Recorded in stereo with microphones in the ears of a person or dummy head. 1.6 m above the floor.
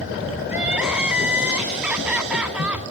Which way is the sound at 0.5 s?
5° right (ahead or behind).